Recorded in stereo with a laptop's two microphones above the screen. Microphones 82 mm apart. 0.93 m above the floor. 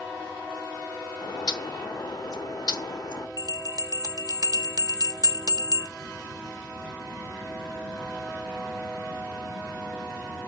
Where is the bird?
60° left (ahead or behind), 0.9 m.